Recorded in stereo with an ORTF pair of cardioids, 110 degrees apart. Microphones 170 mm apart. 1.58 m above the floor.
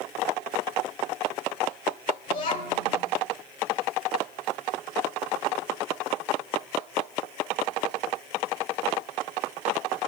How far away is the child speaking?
About 4.5 m.